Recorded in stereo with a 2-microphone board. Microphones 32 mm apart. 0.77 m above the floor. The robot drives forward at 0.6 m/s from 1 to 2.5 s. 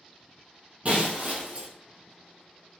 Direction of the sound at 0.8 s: 45° right (ahead or behind).